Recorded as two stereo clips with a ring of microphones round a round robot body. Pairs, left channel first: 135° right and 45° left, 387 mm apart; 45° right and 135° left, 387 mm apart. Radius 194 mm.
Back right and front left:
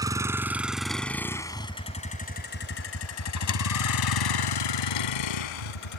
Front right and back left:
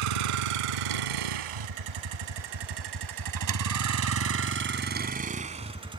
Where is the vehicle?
125° left; by 6.0 s 145° right.